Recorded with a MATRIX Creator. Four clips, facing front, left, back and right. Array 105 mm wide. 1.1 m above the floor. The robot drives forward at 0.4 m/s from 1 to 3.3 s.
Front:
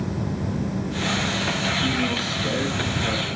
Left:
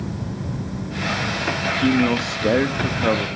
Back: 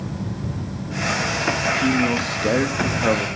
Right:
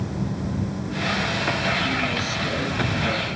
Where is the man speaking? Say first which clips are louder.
Left 6 dB, back 6 dB; 100° left, 0.9 m; by 3.3 s 130° left, 1.2 m.